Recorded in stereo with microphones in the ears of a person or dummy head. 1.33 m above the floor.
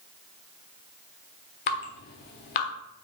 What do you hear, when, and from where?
1.7 s dripping: 35° left (ahead or behind), 1.1 m